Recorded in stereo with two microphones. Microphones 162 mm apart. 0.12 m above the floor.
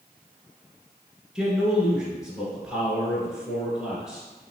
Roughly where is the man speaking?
Centre.